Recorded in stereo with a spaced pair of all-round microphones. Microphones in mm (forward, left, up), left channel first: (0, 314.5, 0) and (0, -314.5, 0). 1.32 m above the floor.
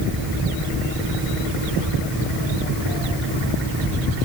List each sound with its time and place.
Only background noise.